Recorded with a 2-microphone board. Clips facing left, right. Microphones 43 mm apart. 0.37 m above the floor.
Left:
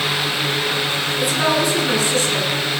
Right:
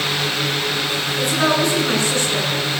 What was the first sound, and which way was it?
A woman speaking, 5° left (ahead or behind).